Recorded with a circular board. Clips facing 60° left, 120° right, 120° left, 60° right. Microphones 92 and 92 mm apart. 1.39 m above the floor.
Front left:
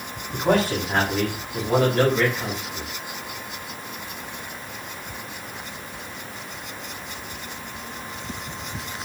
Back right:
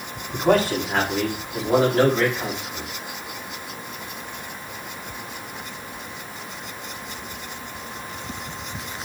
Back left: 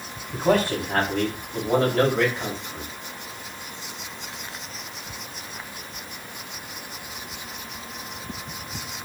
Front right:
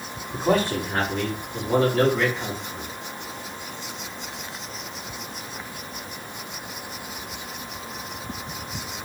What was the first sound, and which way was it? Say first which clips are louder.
A man speaking: back right 2 dB, back left 1 dB; 150° left.